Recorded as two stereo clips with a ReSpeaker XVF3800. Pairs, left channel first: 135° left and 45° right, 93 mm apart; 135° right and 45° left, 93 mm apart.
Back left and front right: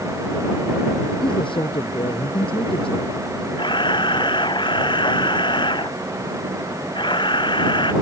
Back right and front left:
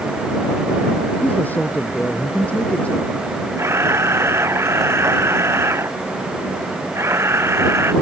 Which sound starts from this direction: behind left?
A man speaking, at 1.2 s.